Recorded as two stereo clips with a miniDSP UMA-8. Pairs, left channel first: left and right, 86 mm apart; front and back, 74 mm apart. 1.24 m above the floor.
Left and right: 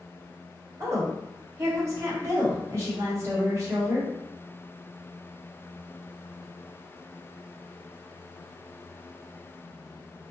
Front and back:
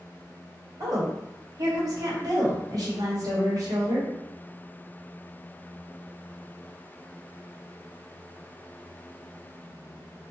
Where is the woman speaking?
145° right, 1.2 m.